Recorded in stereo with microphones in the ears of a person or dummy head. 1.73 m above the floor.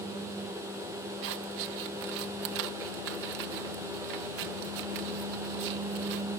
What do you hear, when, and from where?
1.2 s scissors: 60° right (ahead or behind)